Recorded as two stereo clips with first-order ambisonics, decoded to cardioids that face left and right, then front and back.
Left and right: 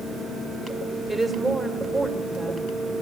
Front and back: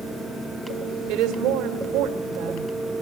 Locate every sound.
1.1 s a woman speaking: straight behind, 1.9 m